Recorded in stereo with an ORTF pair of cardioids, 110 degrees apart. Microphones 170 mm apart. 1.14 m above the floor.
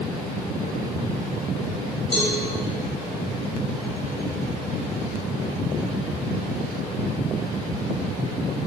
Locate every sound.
2.1 s a cowbell: 35° left, 1.2 m